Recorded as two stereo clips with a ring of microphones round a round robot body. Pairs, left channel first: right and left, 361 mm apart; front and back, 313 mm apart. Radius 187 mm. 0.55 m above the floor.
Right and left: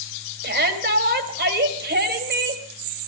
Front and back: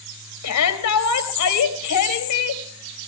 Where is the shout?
25° left, 3 m.